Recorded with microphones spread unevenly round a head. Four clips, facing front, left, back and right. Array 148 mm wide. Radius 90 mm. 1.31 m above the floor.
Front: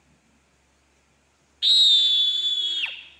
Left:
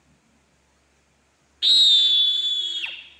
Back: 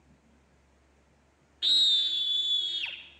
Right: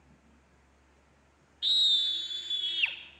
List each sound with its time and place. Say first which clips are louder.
1.6 s a scream: left 10 dB, front 7 dB; 70° left, 0.9 m; by 3.0 s 5° right, 1.4 m